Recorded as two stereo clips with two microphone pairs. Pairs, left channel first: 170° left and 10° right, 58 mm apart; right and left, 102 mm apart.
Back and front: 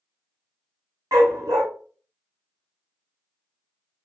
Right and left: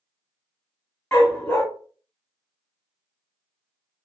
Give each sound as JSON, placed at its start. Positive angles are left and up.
{"t": 1.1, "sound": "a dog barking", "azimuth_deg": -20, "distance_m": 0.9}